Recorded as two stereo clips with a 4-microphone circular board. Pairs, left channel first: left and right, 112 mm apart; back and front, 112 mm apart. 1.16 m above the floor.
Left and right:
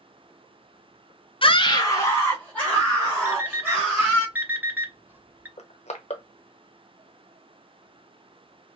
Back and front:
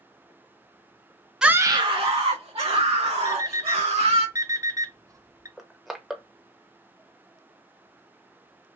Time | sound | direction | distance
1.4 | a scream | 80° left | 0.5 m
3.2 | an alarm clock | 30° right | 0.6 m
5.6 | crushing | 85° left | 0.8 m